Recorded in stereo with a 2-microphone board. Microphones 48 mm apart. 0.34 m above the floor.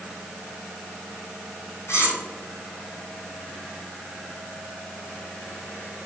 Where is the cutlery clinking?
65° left (ahead or behind), 1.8 m.